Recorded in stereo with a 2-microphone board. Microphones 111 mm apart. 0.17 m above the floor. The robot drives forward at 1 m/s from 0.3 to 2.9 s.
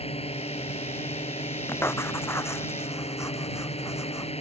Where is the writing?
20° left (ahead or behind); by 4.3 s 25° left (ahead or behind).